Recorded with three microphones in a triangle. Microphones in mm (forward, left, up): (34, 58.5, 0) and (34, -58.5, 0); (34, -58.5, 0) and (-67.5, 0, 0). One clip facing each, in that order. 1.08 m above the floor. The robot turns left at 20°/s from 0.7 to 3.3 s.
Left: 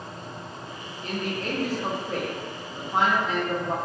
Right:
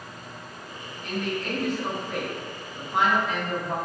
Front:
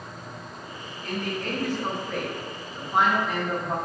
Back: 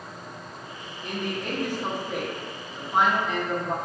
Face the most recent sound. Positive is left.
turn(degrees=55)